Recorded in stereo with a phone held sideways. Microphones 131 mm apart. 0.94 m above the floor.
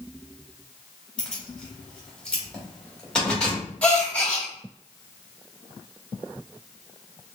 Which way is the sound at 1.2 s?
5° left (ahead or behind).